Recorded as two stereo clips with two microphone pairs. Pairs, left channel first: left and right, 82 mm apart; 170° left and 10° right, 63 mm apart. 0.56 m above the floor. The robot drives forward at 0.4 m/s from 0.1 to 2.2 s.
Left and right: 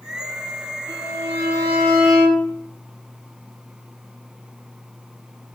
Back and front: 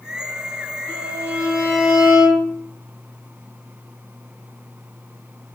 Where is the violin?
160° right, 3 m.